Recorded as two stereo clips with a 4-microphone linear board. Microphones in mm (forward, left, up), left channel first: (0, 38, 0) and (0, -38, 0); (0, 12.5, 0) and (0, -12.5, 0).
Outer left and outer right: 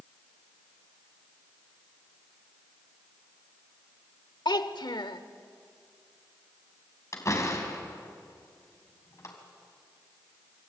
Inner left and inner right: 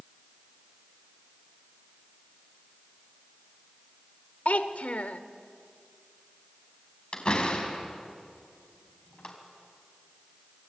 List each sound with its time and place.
4.5 s a child speaking: 75° left (ahead or behind), 1.5 m
7.1 s a door slam: 45° left (ahead or behind), 3.5 m